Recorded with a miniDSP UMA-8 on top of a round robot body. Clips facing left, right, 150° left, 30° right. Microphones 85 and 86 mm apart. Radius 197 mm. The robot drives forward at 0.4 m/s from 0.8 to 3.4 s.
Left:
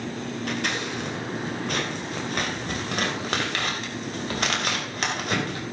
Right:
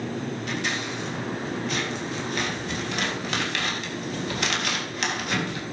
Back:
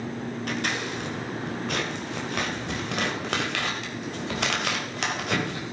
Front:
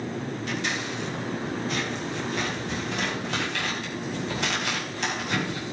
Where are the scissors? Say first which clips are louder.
Left 3 dB, back 2 dB; 120° left, 2.5 m; by 5.6 s 135° left, 3 m.